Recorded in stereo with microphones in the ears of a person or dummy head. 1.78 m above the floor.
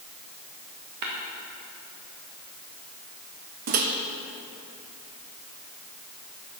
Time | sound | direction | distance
1.0 | tapping | 45° right (ahead or behind) | 1.3 m
3.7 | a microwave | 45° right (ahead or behind) | 0.9 m